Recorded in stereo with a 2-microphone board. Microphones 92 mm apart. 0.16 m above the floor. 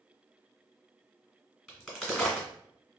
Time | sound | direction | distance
1.7 | a crack | centre (ahead or behind) | 1.6 m